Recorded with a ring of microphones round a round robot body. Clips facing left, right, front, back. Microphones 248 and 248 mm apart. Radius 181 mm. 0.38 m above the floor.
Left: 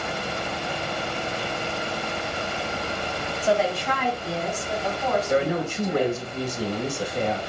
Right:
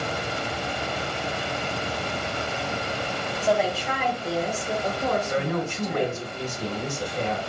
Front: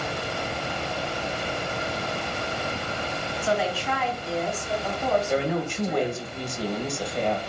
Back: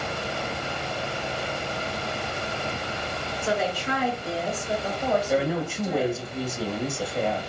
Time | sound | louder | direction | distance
3.4 | a woman speaking | left 1 dB, even | 165° left | 1.2 m
5.3 | a woman speaking | left 3 dB, back 1 dB | 95° left | 0.9 m